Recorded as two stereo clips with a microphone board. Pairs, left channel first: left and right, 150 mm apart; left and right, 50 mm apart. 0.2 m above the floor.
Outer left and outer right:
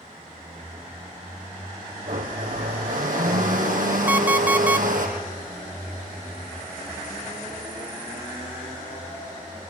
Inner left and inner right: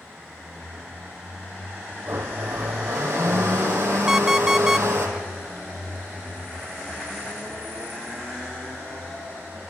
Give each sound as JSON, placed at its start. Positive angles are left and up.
{"t": 2.1, "sound": "a blender", "side_deg": -65, "distance_m": 4.0}
{"t": 4.1, "sound": "an alarm clock", "side_deg": -10, "distance_m": 0.9}